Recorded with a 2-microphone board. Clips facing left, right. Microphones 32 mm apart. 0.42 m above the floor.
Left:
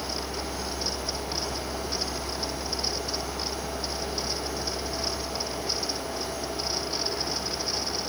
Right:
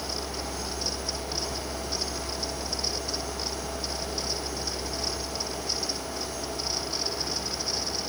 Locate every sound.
Only background noise.